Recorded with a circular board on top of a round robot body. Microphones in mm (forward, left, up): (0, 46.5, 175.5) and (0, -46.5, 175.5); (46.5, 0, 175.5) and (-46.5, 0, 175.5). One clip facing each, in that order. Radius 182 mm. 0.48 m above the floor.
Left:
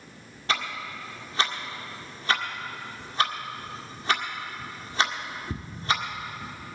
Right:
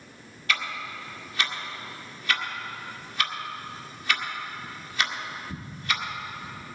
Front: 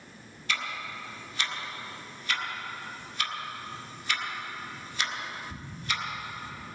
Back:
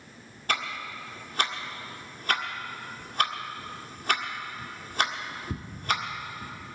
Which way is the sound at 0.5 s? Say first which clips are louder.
Left 1 dB, back 3 dB; 145° left.